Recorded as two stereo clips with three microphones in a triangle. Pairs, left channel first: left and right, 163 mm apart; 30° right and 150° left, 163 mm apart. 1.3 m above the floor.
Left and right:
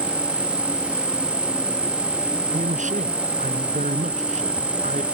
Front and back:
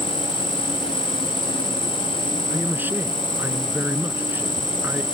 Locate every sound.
0.0 s an insect: 170° right
2.5 s a man speaking: 130° right